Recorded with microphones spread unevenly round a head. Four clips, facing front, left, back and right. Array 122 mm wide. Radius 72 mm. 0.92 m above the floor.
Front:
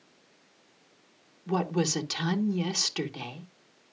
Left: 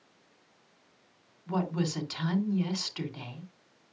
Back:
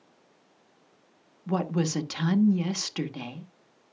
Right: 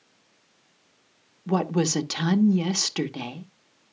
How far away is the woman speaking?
About 1.3 m.